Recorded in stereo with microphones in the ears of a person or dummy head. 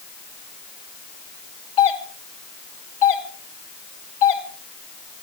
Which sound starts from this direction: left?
A doorbell, at 1.8 s.